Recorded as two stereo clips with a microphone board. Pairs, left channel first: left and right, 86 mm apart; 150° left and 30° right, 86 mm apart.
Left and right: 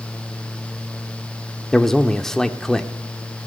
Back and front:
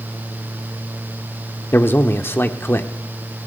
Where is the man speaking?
165° left, 1.2 m.